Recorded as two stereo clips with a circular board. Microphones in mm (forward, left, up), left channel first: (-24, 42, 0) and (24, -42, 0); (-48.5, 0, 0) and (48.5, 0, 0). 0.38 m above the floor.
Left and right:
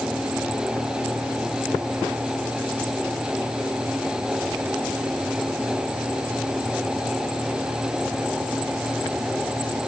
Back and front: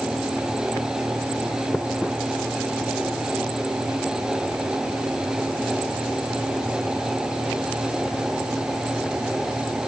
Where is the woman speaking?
No woman speaking in this recording.